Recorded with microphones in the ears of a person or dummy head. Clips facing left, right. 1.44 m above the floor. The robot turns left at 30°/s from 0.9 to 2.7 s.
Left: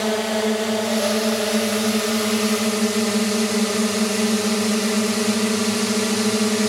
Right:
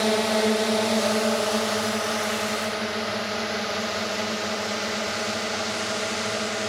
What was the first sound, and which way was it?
A drone, centre (ahead or behind).